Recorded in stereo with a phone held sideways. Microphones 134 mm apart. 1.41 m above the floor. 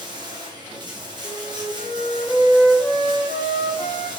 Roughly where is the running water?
Right.